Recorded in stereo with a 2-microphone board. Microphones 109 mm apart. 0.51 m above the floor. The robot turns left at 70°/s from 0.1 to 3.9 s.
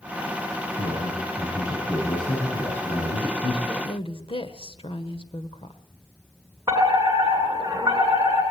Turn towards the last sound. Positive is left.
turn(degrees=-30)  # may be behind; listen again after turning